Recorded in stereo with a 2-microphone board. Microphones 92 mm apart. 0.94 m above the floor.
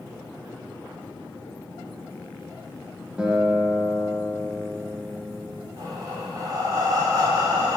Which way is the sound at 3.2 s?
10° right (ahead or behind).